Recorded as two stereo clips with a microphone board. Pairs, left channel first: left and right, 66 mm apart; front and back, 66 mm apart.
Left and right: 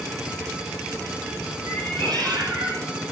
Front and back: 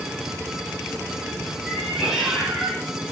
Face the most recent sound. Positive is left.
turn(degrees=-90)